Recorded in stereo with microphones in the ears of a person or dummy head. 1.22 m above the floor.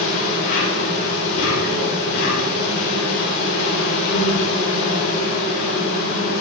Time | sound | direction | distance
0.0 | an insect | 65° left (ahead or behind) | 7 m